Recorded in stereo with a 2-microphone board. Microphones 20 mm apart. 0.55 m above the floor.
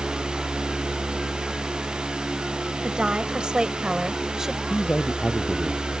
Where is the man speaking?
70° left (ahead or behind).